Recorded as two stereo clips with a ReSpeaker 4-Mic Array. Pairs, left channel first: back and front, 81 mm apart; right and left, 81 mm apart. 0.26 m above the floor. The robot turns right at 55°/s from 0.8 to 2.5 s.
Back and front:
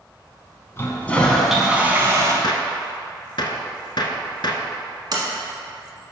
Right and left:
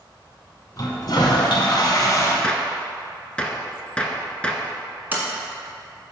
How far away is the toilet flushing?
About 1.0 m.